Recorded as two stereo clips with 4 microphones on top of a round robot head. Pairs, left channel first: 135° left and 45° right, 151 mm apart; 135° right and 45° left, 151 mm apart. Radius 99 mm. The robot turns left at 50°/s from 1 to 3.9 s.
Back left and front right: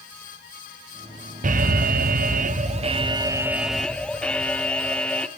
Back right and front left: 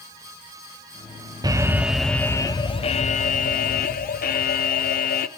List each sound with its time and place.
1.4 s an alarm: 20° right, 0.8 m; by 5.3 s 140° right, 0.8 m